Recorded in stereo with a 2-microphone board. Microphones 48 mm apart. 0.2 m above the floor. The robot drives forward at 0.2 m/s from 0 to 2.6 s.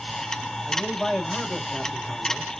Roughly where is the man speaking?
Centre.